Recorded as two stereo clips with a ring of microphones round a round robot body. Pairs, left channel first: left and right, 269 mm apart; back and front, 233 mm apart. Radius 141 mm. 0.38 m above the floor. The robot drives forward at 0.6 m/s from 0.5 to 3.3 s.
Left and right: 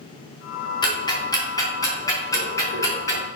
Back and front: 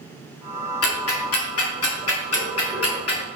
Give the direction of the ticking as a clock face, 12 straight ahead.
7 o'clock.